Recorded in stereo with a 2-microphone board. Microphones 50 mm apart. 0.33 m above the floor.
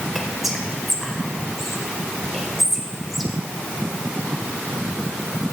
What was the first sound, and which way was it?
Whispering, centre (ahead or behind).